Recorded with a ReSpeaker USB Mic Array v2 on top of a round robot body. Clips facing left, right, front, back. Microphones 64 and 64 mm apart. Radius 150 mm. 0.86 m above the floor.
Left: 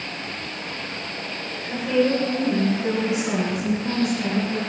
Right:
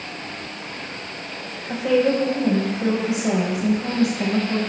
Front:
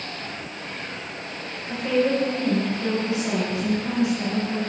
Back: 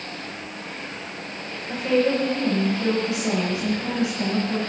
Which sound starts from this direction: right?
A woman speaking, at 1.7 s.